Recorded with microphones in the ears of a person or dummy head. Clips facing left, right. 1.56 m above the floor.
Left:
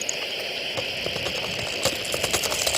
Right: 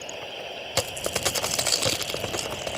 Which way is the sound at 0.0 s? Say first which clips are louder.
Left 3 dB; 30° left (ahead or behind).